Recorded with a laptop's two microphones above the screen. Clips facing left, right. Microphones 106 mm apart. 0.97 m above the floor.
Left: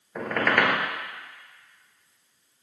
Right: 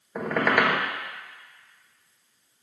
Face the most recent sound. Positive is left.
turn(degrees=-10)  # may be behind; listen again after turning